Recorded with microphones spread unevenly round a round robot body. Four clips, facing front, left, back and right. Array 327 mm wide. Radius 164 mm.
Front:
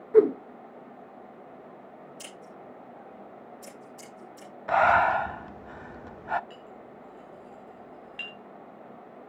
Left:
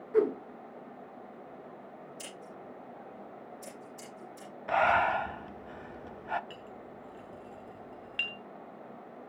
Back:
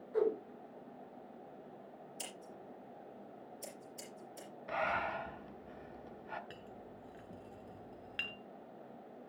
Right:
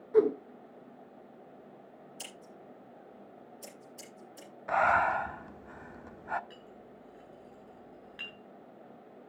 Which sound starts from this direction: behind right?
Scissors, at 2.2 s.